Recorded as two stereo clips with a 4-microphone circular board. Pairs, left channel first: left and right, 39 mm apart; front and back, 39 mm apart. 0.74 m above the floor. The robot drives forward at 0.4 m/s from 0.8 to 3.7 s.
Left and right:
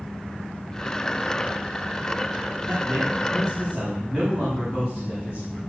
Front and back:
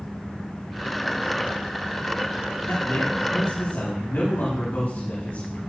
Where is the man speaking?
10° right, 7 m.